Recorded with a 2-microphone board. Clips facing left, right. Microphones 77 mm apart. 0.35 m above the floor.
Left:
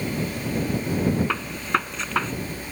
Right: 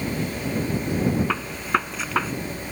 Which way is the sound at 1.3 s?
5° right (ahead or behind).